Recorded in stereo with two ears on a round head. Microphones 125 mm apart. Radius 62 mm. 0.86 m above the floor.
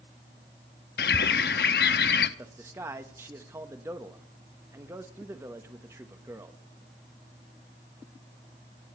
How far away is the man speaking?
About 1.1 m.